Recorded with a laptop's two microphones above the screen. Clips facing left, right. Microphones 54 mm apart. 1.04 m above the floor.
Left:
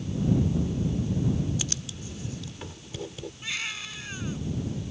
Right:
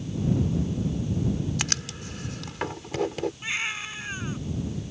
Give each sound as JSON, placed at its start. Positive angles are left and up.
{"t": 1.6, "sound": "writing", "side_deg": -75}
{"t": 3.4, "sound": "a baby crying", "side_deg": -25}